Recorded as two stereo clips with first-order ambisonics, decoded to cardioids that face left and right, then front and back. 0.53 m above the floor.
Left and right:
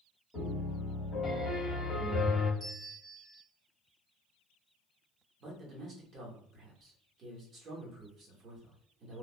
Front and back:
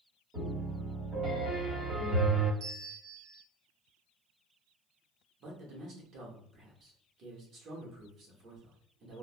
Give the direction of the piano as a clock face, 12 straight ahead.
7 o'clock.